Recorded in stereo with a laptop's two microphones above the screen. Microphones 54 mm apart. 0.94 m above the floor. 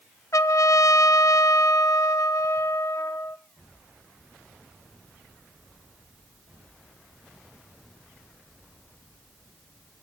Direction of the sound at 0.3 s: 75° left (ahead or behind).